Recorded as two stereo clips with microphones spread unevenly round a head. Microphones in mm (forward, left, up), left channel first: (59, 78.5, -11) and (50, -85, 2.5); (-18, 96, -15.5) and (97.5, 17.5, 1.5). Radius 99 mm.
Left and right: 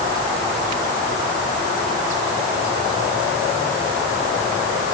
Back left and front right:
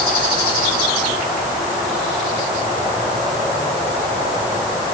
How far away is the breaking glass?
I don't hear breaking glass.